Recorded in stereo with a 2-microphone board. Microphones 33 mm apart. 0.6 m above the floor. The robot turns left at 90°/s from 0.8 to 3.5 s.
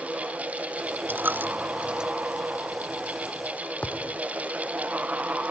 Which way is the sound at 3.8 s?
35° left (ahead or behind).